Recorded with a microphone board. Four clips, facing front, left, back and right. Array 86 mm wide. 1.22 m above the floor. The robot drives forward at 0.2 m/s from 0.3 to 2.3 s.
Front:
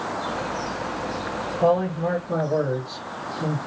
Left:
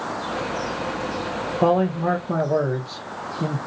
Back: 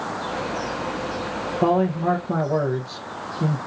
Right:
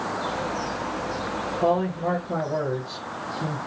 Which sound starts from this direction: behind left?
A man speaking, at 1.6 s.